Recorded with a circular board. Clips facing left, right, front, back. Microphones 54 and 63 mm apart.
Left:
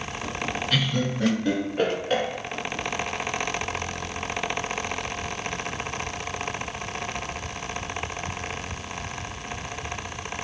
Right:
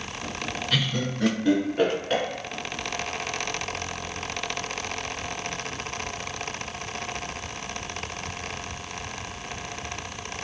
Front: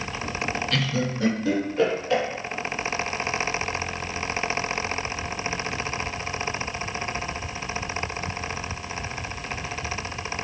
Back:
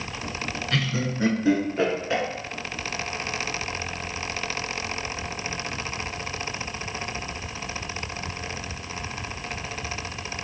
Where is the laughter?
Straight behind, 1.1 m.